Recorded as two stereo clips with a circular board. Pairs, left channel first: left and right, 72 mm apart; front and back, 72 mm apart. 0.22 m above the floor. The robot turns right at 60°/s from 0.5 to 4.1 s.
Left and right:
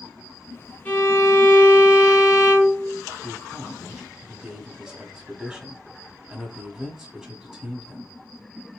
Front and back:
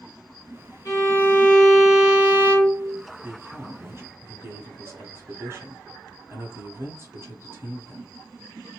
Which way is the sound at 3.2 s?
145° left.